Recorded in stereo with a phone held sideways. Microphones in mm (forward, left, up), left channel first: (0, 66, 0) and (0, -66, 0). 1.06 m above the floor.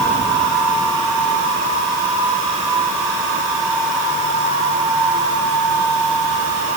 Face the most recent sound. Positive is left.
No sound to turn to.